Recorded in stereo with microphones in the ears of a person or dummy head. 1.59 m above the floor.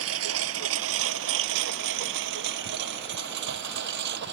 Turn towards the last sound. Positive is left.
turn(degrees=-60)  # may be behind; listen again after turning